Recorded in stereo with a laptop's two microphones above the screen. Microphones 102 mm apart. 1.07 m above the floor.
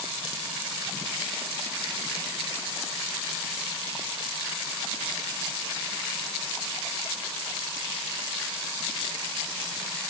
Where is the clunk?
I don't hear a clunk.